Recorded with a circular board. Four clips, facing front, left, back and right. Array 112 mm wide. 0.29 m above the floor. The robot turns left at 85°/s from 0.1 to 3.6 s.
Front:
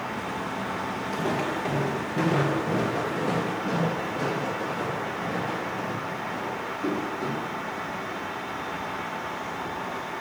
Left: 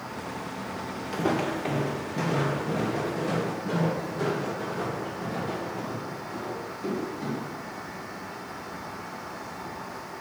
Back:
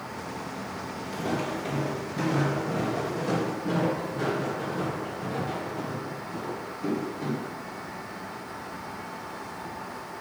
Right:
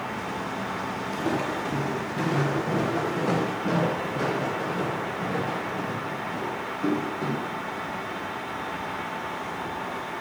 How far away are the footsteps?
About 1.7 m.